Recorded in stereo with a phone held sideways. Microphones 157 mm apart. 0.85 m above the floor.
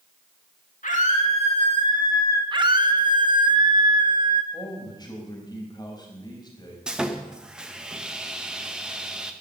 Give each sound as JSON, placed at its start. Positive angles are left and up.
{"t": 0.8, "sound": "a scream", "side_deg": 55, "distance_m": 1.9}
{"t": 2.5, "sound": "a scream", "side_deg": -30, "distance_m": 1.3}
{"t": 4.5, "sound": "a man speaking", "side_deg": 25, "distance_m": 4.0}
{"t": 6.9, "sound": "sawing", "side_deg": -5, "distance_m": 1.0}